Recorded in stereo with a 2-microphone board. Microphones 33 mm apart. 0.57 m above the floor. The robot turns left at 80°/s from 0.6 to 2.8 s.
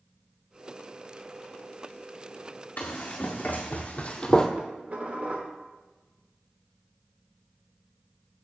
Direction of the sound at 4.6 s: 45° right (ahead or behind).